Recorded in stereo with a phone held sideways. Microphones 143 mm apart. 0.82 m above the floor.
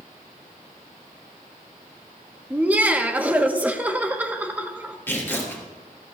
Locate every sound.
2.5 s laughter: 10° right (ahead or behind), 1.0 m
5.1 s tearing paper: 15° left (ahead or behind), 3 m